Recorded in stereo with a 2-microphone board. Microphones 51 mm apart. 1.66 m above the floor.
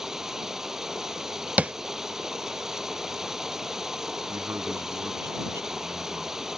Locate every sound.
0.0 s running water: 10° right (ahead or behind)
1.6 s tapping: 30° right (ahead or behind)
4.3 s a man speaking: 65° right (ahead or behind)